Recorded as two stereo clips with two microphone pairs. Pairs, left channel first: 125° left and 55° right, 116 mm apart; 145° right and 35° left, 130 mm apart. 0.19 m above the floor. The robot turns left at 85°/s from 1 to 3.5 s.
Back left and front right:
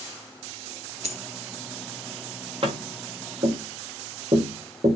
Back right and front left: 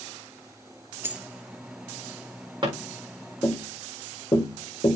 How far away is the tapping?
About 5 m.